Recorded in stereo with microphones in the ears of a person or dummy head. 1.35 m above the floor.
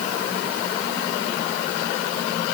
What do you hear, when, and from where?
Only background noise.